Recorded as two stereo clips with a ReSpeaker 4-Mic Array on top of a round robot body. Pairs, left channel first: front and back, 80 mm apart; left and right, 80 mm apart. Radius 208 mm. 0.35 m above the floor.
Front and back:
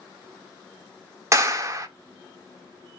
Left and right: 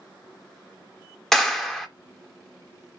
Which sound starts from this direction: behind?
A clap, at 1.3 s.